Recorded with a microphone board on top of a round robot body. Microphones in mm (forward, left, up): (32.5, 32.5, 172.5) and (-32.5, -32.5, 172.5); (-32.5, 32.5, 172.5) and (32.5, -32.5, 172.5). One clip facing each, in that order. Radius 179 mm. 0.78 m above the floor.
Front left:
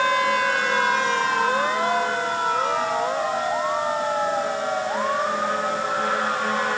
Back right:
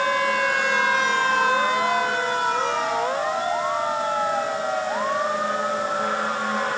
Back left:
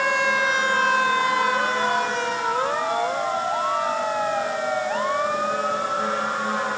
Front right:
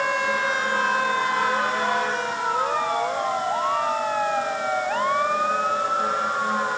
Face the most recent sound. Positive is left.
No sound to turn to.